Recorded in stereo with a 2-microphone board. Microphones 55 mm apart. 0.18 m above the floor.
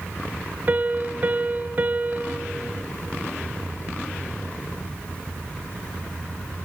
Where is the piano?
35° right (ahead or behind), 0.5 m.